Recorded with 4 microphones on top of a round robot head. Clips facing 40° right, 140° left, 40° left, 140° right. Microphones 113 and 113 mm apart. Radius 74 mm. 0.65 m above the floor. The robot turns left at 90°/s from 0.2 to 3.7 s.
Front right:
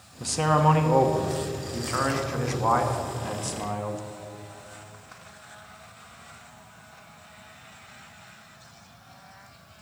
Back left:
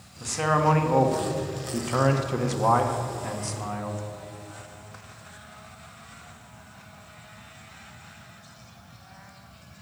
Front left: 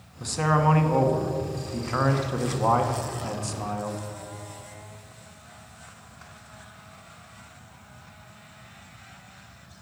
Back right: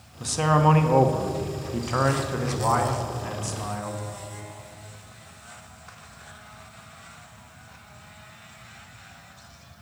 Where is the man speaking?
55° right, 1.0 m; by 4.0 s 10° right, 1.0 m.